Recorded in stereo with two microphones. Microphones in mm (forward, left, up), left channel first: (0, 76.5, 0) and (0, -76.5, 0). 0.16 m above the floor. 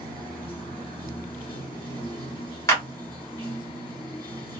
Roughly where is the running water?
Left.